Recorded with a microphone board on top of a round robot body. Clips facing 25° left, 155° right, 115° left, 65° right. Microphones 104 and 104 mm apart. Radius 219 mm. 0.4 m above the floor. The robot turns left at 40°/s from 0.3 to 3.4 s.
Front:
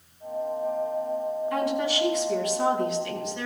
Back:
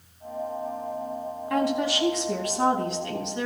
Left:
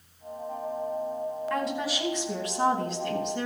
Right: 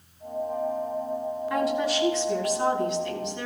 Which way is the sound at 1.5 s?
145° right.